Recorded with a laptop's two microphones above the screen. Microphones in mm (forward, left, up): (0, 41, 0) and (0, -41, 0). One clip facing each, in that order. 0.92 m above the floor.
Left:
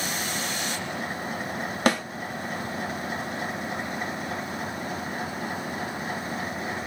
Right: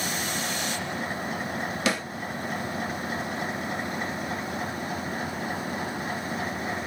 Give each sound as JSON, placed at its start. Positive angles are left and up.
{"t": 1.9, "sound": "a snare drum", "side_deg": 50, "distance_m": 0.9}